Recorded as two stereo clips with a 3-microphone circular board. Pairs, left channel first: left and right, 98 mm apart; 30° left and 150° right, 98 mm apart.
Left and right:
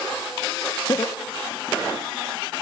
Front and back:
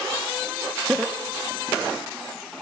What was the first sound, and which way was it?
Laughter, 135° left.